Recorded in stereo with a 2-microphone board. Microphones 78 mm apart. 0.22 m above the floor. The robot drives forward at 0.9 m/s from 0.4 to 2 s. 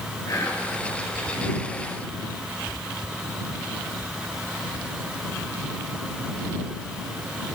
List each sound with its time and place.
0.3 s whispering: 45° left (ahead or behind), 3 m; by 0.7 s 40° left (ahead or behind), 3 m